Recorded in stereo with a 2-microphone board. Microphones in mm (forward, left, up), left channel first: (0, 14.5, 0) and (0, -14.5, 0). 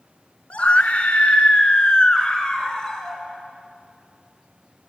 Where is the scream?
45° left (ahead or behind), 2.5 m; by 3.2 s 20° left (ahead or behind), 4 m.